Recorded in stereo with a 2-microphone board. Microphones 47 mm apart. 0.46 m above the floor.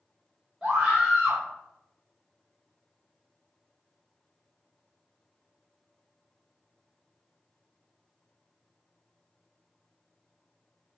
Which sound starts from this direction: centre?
A scream, at 0.6 s.